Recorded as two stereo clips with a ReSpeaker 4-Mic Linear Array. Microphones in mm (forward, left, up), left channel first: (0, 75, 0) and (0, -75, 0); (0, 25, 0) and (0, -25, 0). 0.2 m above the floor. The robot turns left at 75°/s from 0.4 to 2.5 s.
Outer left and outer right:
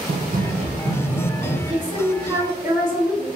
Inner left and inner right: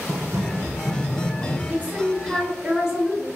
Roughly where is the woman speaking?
Right.